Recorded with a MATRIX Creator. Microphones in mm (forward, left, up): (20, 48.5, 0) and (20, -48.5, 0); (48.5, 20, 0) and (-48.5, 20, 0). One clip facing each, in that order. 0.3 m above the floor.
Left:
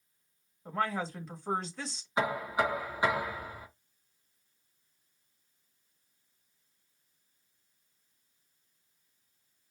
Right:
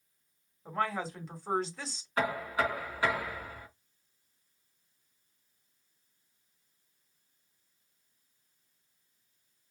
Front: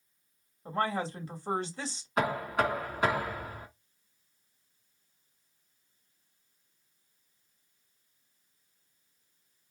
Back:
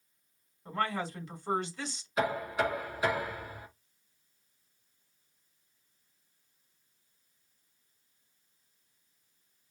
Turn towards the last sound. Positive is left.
turn(degrees=15)